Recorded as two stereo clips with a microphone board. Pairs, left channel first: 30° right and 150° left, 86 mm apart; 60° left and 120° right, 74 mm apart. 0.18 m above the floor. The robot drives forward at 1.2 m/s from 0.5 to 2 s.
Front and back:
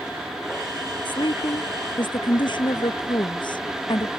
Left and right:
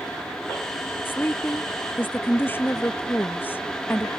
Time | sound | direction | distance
1.1 | a woman speaking | 5° right | ?